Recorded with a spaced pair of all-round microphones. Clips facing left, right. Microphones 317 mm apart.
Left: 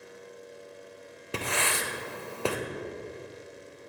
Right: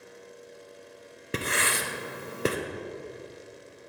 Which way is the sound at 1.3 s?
25° right (ahead or behind).